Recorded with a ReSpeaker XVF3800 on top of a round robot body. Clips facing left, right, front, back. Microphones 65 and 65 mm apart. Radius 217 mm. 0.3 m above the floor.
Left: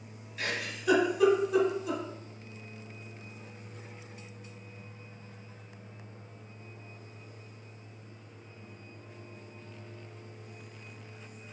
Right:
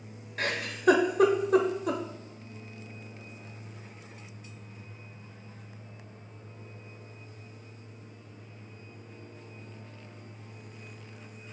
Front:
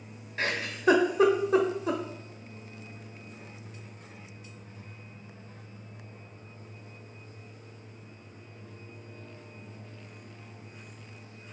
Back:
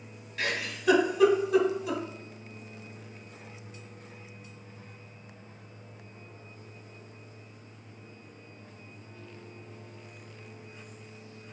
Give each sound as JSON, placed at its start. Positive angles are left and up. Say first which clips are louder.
{"t": 0.4, "sound": "a giggle", "louder": "right 4 dB, front 2 dB", "azimuth_deg": -55, "distance_m": 0.9}